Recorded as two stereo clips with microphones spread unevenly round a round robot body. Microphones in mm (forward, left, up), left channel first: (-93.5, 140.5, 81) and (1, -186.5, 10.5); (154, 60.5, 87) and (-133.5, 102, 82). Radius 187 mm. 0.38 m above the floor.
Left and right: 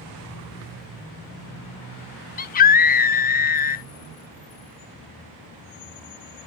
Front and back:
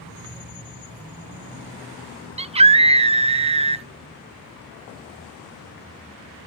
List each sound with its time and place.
2.4 s a scream: 160° left, 0.8 m